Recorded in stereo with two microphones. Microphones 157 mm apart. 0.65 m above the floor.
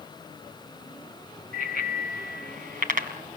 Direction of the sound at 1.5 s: 60° right (ahead or behind).